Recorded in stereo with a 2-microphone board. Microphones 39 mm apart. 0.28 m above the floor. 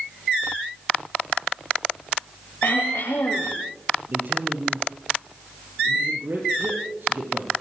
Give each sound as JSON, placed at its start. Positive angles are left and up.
{"t": 2.6, "sound": "throat clearing", "side_deg": 75, "distance_m": 7.0}
{"t": 4.1, "sound": "a man speaking", "side_deg": -60, "distance_m": 6.0}